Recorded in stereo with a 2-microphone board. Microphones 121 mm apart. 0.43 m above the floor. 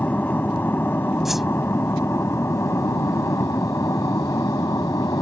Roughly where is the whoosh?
Centre.